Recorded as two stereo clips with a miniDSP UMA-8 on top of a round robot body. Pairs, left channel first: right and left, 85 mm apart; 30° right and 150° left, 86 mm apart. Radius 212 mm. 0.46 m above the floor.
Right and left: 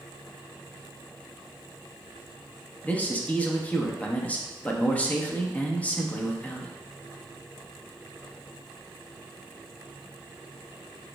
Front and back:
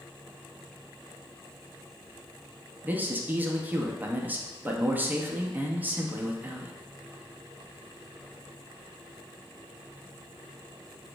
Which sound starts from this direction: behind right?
A man speaking, at 2.8 s.